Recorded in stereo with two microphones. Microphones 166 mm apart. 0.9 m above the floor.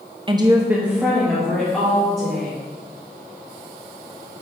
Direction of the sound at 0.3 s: 30° right (ahead or behind).